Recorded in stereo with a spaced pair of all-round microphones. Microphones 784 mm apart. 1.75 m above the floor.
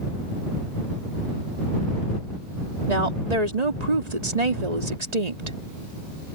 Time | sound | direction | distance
2.9 | a woman speaking | 60° right (ahead or behind) | ?